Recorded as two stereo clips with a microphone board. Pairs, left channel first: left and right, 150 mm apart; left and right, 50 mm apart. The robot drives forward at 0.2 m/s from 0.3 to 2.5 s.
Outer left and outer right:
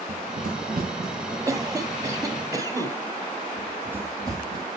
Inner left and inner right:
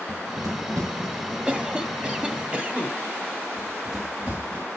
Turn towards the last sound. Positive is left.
turn(degrees=-30)  # may be behind; listen again after turning